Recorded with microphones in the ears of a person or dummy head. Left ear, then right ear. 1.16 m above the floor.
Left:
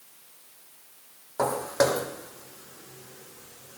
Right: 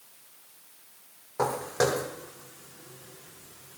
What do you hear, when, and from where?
1.4 s footsteps: 20° left (ahead or behind), 2.5 m; by 3.8 s 40° left (ahead or behind), 3.5 m